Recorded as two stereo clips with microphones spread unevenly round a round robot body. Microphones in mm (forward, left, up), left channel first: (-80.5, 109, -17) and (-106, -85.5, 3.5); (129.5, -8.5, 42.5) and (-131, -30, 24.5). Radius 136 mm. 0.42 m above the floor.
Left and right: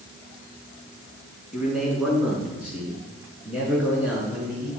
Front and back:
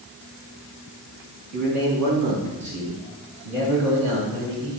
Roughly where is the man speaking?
Behind.